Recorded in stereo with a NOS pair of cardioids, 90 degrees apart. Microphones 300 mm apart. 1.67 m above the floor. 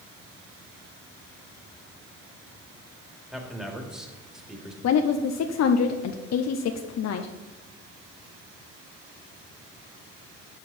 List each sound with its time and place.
3.3 s a man speaking: straight ahead, 2.5 m
4.8 s a woman speaking: 60° left, 0.8 m